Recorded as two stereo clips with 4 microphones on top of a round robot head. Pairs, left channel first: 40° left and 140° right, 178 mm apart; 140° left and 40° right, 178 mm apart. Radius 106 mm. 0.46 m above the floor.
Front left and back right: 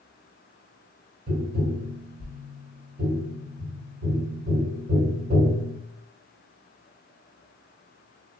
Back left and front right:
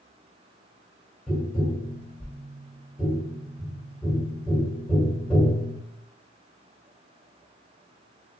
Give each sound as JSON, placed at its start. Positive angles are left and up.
{"t": 1.3, "sound": "tapping", "azimuth_deg": -130, "distance_m": 1.8}